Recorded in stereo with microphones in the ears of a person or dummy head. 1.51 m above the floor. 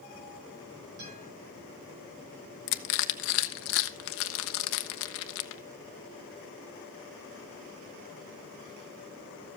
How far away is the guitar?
About 9 m.